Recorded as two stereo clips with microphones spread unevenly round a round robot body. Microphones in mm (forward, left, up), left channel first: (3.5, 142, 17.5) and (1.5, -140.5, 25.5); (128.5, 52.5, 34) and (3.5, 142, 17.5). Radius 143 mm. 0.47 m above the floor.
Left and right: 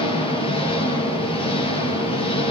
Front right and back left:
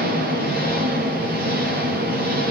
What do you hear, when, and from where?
0.0 s an engine running: 160° left, 7.5 m